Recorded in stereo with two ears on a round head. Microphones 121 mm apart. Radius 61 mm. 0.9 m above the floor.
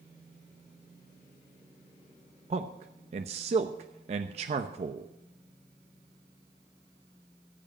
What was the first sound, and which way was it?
A man speaking, 45° right (ahead or behind).